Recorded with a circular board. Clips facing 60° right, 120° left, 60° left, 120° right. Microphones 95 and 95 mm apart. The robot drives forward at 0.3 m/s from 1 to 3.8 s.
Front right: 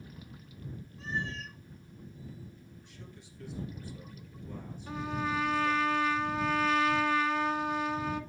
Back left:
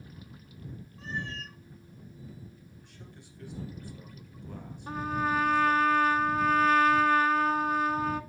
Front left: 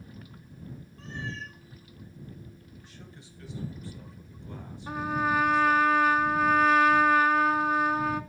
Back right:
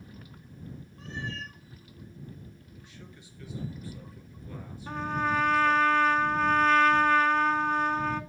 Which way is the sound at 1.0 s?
165° left.